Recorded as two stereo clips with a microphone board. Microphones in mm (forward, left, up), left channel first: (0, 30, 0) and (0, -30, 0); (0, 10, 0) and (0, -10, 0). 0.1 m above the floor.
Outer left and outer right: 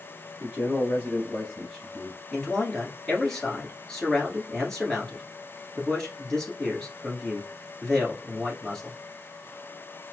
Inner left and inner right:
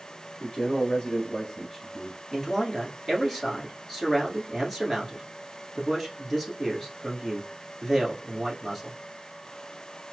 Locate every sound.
0.4 s a man speaking: 35° left (ahead or behind), 1.4 m; by 2.2 s 5° right (ahead or behind), 1.4 m
2.3 s a man speaking: 10° left (ahead or behind), 1.3 m